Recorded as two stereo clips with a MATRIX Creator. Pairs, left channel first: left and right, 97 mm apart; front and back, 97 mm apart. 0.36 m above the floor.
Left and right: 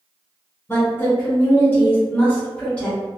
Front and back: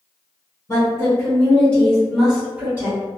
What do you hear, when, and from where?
0.7 s a woman speaking: 35° left, 1.5 m; by 3.0 s 155° left, 1.2 m